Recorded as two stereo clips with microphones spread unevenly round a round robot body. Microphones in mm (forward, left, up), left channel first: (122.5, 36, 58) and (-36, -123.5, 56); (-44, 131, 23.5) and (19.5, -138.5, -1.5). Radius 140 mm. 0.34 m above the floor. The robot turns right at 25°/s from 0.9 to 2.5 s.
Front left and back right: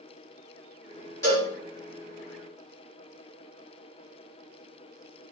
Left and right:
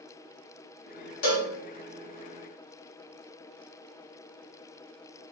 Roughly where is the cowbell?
Behind left.